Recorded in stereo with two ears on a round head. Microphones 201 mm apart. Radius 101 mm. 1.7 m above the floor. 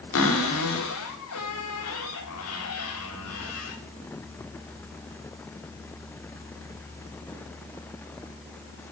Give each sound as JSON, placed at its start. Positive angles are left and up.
{"t": 0.1, "sound": "a cupboard door", "side_deg": 65, "distance_m": 4.0}